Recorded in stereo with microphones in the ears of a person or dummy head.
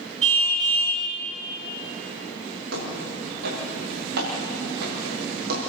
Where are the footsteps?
70° right (ahead or behind), 8.5 m; by 5.6 s 60° right (ahead or behind), 7 m.